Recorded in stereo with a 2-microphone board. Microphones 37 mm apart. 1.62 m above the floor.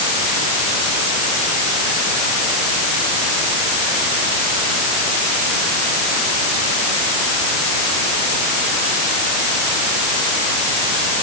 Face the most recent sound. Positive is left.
No sound to turn to.